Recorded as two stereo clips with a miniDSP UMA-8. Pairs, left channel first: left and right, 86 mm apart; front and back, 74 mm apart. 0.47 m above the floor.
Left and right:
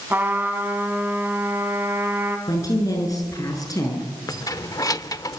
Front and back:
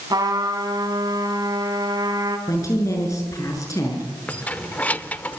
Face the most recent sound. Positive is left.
turn(degrees=60)